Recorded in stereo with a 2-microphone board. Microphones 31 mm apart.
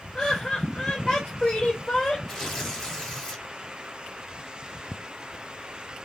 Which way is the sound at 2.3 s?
15° left (ahead or behind).